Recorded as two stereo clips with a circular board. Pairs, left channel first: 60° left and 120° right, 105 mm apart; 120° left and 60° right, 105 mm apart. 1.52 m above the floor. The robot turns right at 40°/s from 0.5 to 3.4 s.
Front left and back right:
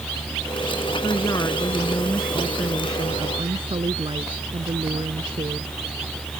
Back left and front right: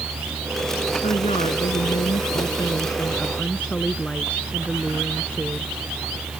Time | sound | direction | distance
1.0 | a woman speaking | 105° left | ?